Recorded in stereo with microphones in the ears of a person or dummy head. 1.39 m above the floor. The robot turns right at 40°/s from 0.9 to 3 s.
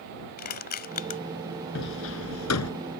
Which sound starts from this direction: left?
Crushing, at 0.4 s.